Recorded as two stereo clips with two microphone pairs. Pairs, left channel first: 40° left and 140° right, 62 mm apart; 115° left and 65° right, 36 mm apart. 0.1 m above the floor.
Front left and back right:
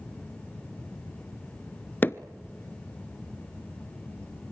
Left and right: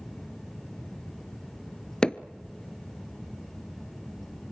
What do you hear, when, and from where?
2.0 s hammering: 65° left, 0.8 m